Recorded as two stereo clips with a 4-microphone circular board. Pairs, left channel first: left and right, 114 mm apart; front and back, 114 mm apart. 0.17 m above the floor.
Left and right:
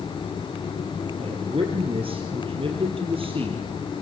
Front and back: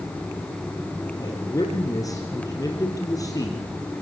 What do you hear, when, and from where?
1.2 s a man speaking: 55° right, 3.5 m